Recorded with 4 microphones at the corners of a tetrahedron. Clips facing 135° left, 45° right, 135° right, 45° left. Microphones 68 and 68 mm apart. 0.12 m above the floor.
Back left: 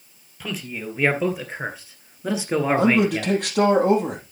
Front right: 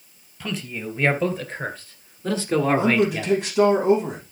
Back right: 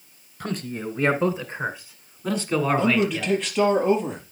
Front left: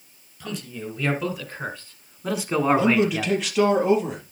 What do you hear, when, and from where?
0.4 s a man speaking: 140° right, 2 m; by 3.3 s 65° left, 1.9 m
2.8 s a man speaking: 130° left, 4 m